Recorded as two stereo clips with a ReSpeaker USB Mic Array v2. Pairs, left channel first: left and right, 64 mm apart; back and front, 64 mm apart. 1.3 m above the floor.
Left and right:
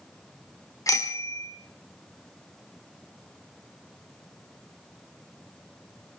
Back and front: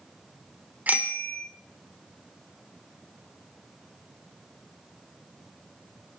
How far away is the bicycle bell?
About 2.5 m.